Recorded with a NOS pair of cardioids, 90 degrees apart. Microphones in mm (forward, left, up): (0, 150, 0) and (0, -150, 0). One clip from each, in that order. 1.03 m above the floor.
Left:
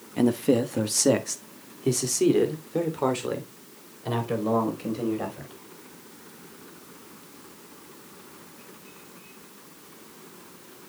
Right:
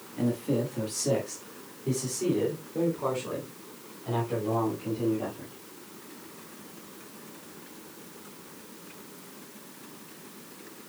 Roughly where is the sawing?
No sawing in this recording.